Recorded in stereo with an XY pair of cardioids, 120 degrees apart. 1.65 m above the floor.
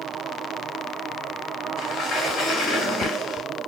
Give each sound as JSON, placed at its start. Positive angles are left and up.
{"t": 1.8, "sound": "a sliding door", "azimuth_deg": 55, "distance_m": 4.5}